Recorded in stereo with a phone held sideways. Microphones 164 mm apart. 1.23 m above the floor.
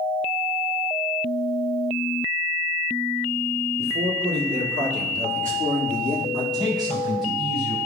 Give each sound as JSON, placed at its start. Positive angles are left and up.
{"t": 3.8, "sound": "a man speaking", "side_deg": -75, "distance_m": 4.0}
{"t": 6.5, "sound": "a man speaking", "side_deg": -25, "distance_m": 6.5}